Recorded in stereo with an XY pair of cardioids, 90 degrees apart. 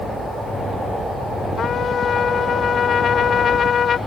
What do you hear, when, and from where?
1.6 s a trumpet: 60° left